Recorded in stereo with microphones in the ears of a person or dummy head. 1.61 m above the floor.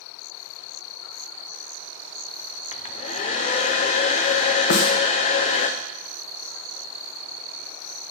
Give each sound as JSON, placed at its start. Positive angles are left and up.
{"t": 2.7, "sound": "a hair dryer", "side_deg": 35, "distance_m": 0.7}
{"t": 4.7, "sound": "a snare drum", "side_deg": 60, "distance_m": 0.9}